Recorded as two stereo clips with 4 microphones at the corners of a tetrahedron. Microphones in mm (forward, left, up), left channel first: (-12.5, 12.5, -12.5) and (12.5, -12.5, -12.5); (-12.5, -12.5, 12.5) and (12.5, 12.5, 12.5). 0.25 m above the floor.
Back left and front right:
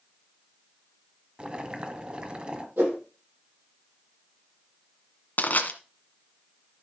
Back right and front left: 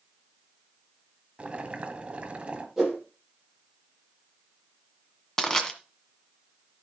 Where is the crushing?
150° left, 1.7 m.